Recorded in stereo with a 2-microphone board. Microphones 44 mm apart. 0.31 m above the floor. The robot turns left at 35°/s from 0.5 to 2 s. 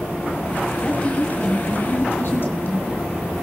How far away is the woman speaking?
About 2.0 m.